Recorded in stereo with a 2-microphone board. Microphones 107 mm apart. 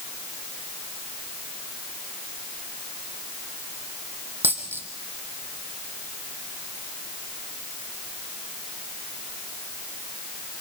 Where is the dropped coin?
20° right (ahead or behind), 3 m.